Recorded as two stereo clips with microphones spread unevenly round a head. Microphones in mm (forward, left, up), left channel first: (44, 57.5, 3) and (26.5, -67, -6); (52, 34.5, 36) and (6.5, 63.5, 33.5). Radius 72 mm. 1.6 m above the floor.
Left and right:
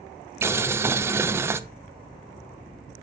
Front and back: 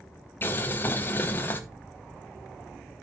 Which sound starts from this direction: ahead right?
Boiling, at 0.4 s.